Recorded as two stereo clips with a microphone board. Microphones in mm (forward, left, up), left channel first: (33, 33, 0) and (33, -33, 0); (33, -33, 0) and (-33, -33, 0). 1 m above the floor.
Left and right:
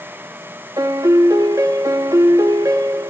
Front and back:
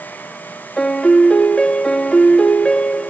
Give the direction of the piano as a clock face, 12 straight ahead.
2 o'clock.